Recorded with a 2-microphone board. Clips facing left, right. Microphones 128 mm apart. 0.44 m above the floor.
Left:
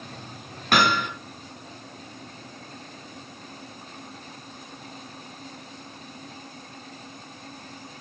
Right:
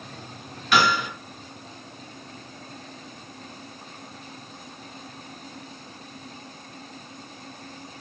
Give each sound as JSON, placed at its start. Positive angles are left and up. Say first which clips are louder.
{"t": 0.7, "sound": "hammering", "louder": "even", "side_deg": 50, "distance_m": 3.5}